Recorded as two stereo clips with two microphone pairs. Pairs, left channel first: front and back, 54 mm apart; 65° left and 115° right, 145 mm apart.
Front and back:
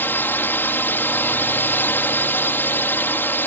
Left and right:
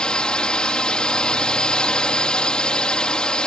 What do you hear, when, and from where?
0.0 s a drone: 15° right